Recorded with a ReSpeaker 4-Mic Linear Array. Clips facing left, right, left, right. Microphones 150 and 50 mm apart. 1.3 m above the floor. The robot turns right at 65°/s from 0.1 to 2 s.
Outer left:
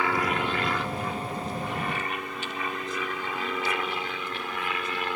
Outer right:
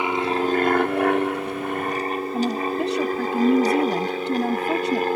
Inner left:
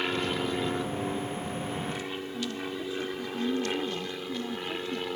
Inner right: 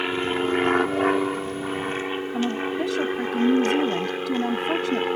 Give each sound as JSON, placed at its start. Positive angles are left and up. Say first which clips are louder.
{"t": 0.0, "sound": "an aircraft", "louder": "outer right 5 dB, inner right 5 dB", "side_deg": -20}
{"t": 2.3, "sound": "a woman speaking", "louder": "outer right 11 dB, inner right 11 dB", "side_deg": -80}